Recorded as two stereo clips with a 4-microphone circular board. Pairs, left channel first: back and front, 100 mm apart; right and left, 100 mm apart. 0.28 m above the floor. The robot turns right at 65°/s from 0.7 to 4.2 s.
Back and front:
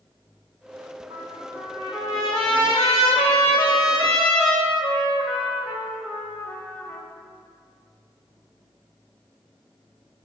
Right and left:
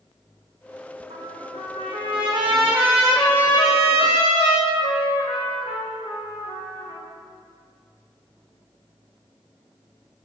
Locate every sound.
1.1 s a trumpet: 50° left, 3 m; by 7.0 s 110° right, 3 m